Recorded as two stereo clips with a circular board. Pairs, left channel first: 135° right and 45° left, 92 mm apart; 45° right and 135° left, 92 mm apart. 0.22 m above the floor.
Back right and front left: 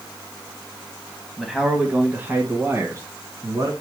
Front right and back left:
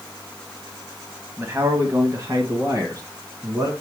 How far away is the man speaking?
About 1.1 m.